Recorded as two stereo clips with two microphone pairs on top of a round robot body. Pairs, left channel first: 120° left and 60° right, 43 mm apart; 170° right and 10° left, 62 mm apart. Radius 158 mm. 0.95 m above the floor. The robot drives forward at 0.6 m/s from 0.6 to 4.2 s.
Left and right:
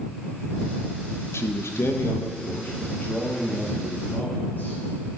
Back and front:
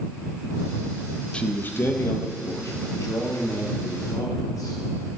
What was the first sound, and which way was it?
A man speaking, 120° left.